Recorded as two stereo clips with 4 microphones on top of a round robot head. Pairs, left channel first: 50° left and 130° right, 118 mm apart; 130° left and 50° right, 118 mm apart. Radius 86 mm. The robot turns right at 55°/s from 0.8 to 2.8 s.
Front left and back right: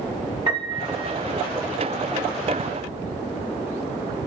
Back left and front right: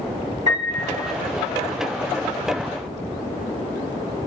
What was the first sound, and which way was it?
A piano, 75° right.